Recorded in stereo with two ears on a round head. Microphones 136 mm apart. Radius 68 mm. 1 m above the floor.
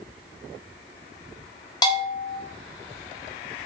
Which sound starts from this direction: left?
A bell, at 1.8 s.